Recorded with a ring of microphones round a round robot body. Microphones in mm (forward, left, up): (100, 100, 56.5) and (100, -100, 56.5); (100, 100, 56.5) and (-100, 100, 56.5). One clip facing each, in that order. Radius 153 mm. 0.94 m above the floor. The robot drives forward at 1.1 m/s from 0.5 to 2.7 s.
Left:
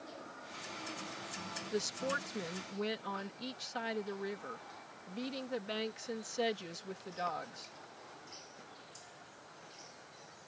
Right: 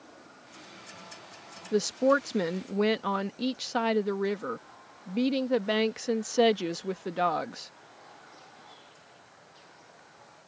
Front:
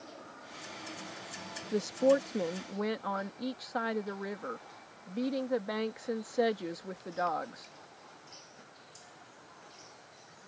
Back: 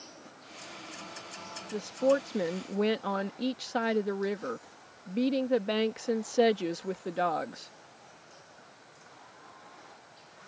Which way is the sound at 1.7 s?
65° right.